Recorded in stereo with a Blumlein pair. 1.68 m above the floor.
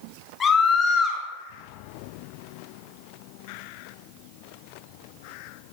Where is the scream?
20° left, 4 m.